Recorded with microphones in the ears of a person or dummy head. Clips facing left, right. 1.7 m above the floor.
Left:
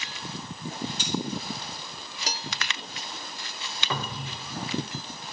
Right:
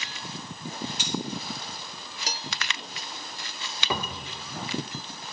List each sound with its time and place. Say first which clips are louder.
1.0 s cutlery clinking: left 1 dB; 10° right (ahead or behind), 2.5 m
3.9 s a cupboard door: right 1 dB; 10° right (ahead or behind), 0.6 m